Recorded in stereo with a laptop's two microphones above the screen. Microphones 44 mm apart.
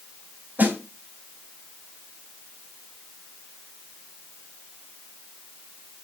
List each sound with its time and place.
0.6 s a snare drum: 45° right (ahead or behind), 4 m